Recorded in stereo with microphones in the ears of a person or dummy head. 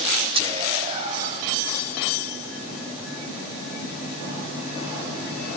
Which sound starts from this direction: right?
Whispering, at 0.3 s.